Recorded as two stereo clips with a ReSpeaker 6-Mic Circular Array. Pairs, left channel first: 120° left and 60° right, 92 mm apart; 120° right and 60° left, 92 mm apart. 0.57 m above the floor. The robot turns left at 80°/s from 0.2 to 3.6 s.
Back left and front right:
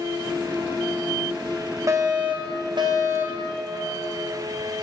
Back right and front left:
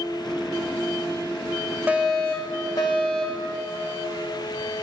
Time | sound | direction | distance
1.9 | a fire alarm | 10° right | 4 m